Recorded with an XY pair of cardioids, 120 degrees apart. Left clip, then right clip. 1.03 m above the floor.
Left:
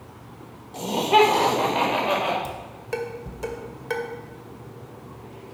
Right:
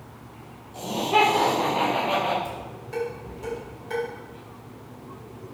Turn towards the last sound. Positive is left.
turn(degrees=60)